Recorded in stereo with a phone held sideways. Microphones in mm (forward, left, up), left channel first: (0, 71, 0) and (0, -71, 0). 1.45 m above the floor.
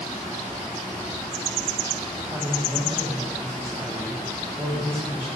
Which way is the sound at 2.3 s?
15° right (ahead or behind).